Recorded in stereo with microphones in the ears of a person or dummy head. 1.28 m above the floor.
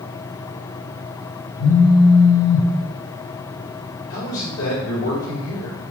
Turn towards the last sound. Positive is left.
turn(degrees=75)  # may be behind; listen again after turning